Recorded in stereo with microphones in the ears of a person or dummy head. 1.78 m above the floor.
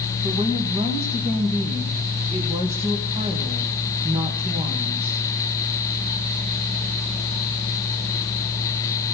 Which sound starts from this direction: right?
A woman speaking, at 0.2 s.